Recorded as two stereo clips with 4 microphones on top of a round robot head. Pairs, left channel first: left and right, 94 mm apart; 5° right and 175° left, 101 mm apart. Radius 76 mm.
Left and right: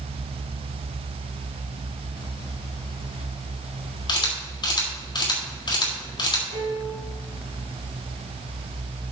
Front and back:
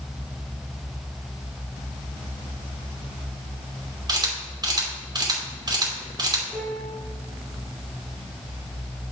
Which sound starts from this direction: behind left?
A camera shutter, at 4.1 s.